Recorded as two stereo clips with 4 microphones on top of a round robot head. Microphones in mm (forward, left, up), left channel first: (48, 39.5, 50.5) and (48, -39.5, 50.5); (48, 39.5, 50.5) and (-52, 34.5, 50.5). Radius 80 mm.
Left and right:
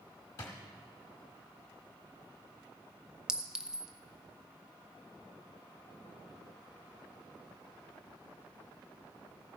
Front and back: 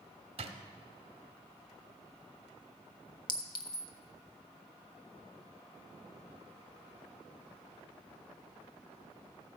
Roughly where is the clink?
Ahead.